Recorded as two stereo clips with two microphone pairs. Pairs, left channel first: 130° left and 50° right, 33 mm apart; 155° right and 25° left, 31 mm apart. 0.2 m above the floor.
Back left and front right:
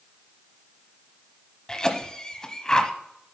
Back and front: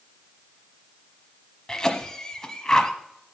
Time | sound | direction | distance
1.7 | a cough | 165° left | 1.0 m